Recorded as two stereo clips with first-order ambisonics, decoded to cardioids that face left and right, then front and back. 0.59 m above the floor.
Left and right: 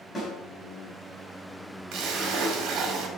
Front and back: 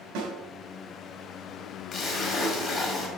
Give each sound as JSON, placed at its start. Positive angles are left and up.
{"t": 0.1, "sound": "a snare drum", "azimuth_deg": 165, "distance_m": 3.0}
{"t": 1.9, "sound": "a splash", "azimuth_deg": -60, "distance_m": 2.0}